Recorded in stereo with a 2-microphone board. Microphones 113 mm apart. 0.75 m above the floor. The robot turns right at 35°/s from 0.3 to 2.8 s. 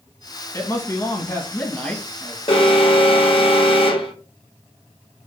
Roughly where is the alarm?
Left.